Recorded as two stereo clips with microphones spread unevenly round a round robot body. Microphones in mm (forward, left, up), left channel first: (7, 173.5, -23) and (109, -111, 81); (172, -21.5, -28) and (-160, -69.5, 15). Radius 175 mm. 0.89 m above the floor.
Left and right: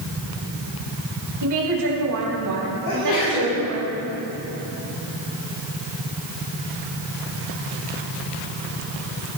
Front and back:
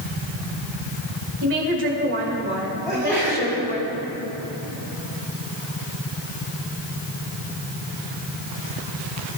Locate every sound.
1.4 s a woman speaking: 120° right, 4 m; by 3.9 s 105° right, 5 m
2.9 s a sneeze: 95° left, 6.5 m